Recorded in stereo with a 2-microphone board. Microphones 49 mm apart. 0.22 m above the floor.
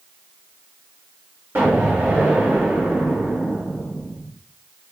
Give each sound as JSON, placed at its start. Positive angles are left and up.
{"t": 1.6, "sound": "an explosion", "side_deg": -50, "distance_m": 2.0}